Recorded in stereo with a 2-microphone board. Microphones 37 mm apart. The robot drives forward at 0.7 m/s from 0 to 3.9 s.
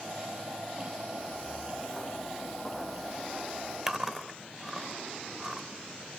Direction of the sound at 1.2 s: 10° left (ahead or behind).